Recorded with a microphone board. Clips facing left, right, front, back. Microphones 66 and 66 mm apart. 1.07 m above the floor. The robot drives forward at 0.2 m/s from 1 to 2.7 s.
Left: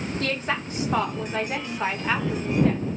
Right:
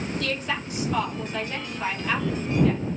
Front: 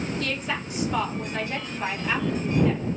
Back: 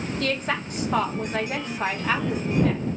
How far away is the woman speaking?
About 1.2 m.